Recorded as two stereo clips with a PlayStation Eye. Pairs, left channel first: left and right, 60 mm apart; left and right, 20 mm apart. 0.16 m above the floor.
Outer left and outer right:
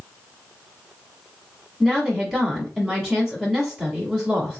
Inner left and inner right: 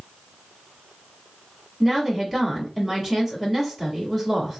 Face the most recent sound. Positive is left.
turn(degrees=-5)  # may be behind; listen again after turning